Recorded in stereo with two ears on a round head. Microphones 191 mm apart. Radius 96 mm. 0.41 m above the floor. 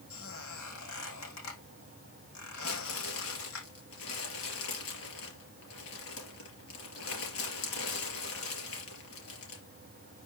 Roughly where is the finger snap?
I don't hear a finger snap.